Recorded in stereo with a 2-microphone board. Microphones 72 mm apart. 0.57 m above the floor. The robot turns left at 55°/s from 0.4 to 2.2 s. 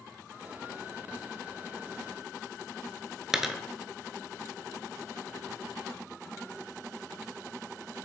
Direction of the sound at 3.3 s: 5° right (ahead or behind).